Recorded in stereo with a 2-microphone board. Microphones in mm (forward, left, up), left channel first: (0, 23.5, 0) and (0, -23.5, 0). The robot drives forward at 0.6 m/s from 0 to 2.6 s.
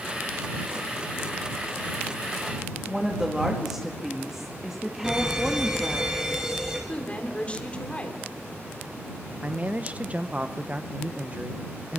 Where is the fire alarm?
15° right (ahead or behind), 6.5 m.